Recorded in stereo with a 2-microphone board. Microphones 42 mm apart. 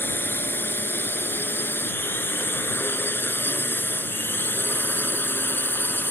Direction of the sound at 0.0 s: 55° left (ahead or behind).